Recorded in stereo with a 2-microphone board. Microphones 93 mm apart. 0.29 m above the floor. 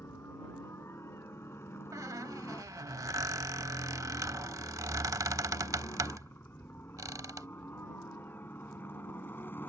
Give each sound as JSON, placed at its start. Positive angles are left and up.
{"t": 0.0, "sound": "a helicopter", "side_deg": 30}
{"t": 1.9, "sound": "a squeak", "side_deg": -40}